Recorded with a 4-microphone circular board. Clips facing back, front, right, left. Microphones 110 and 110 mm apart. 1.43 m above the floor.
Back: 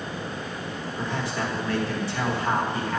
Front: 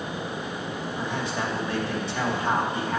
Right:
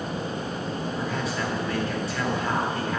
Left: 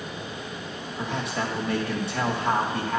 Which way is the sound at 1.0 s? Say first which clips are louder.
Back 1 dB, left 3 dB; 70° left.